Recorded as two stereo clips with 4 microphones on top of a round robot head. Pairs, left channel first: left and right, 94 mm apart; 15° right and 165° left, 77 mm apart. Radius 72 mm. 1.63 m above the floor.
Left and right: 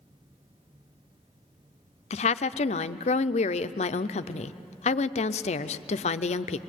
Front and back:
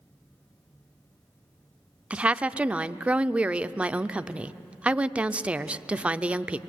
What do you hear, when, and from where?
2.1 s a woman speaking: 90° left, 0.5 m